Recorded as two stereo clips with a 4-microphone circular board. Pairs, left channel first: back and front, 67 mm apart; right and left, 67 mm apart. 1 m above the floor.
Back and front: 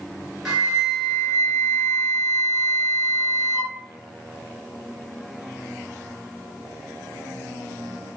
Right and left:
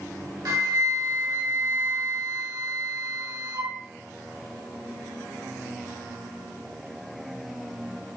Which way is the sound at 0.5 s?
80° left.